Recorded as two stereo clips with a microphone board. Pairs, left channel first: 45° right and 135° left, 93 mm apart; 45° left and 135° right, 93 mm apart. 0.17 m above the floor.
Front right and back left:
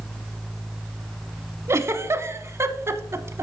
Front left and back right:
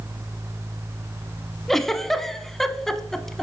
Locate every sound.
1.7 s a giggle: 125° left, 0.5 m